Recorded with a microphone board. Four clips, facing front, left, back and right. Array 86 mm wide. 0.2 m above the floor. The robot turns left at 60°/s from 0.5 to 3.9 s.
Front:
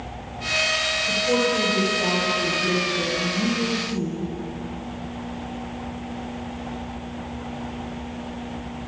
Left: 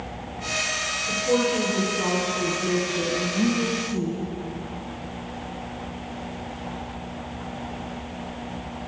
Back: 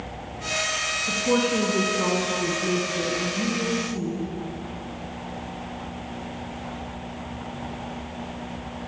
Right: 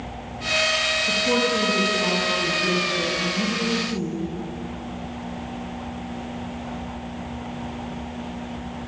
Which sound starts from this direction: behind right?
A woman speaking, at 1.1 s.